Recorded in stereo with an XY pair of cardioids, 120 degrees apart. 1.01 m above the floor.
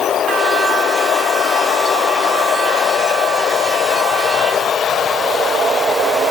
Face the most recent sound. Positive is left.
No sound to turn to.